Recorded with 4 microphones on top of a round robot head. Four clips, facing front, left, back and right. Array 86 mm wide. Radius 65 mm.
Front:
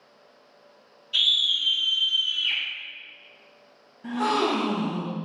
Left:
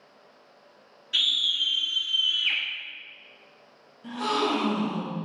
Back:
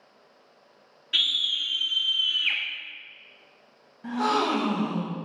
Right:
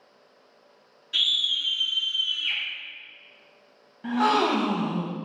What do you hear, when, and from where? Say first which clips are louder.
1.1 s a scream: even, front 2 dB; 160° left, 2.0 m; by 2.6 s 145° left, 1.1 m
4.0 s a gasp: right 5 dB, front 1 dB; 100° right, 1.0 m